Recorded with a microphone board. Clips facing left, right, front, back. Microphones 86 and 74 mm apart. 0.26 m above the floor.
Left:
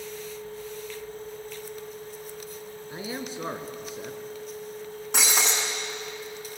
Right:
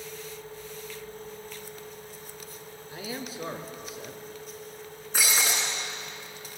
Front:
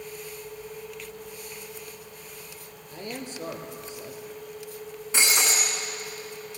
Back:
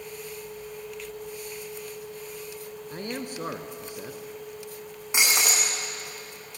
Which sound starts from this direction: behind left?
A man speaking, at 2.9 s.